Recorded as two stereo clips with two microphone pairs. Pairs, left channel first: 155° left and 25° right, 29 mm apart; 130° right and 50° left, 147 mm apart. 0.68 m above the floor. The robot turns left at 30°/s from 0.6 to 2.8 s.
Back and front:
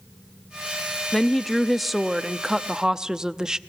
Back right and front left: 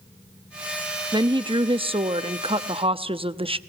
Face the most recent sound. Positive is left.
turn(degrees=35)